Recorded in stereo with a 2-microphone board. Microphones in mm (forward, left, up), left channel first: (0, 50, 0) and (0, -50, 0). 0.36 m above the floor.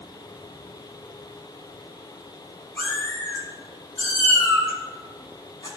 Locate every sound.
2.8 s a cat meowing: 15° left (ahead or behind), 3.5 m; by 5.7 s 45° left (ahead or behind), 3 m